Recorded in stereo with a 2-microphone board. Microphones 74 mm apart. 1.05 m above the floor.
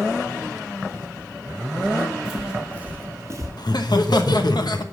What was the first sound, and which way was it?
Footsteps, 10° left (ahead or behind).